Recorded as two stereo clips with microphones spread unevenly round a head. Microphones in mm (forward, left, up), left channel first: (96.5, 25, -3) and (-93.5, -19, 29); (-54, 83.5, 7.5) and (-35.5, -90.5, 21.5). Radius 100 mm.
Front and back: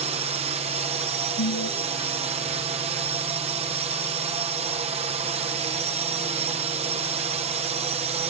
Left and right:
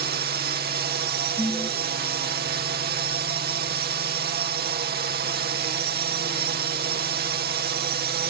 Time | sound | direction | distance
0.0 | a drone | 105° right | ?
1.4 | an alarm | 15° left | ?